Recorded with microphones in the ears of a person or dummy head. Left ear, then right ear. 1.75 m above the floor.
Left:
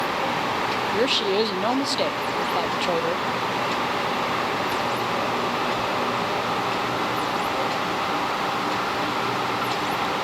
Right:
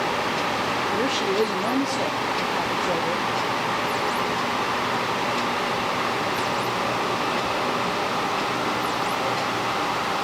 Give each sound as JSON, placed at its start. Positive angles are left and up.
{"t": 0.9, "sound": "a woman speaking", "side_deg": 40, "distance_m": 0.8}